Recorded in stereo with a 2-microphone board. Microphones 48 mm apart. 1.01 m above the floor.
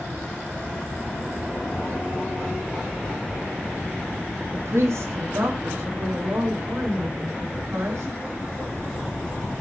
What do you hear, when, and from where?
4.5 s a woman speaking: 60° right (ahead or behind), 1.4 m; by 8.2 s 70° right (ahead or behind), 5.5 m